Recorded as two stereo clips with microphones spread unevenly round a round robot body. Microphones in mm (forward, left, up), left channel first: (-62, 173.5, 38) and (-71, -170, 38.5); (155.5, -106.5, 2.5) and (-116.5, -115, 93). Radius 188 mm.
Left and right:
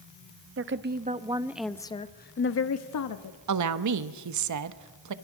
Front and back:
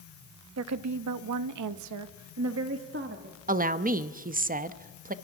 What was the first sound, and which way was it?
A woman speaking, 140° right.